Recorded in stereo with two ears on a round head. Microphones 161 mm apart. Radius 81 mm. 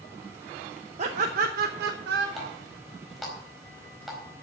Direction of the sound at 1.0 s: 40° right (ahead or behind).